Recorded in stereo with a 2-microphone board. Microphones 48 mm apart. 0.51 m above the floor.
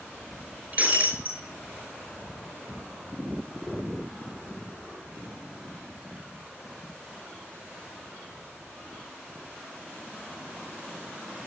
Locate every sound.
0.7 s breaking glass: 30° right (ahead or behind), 5 m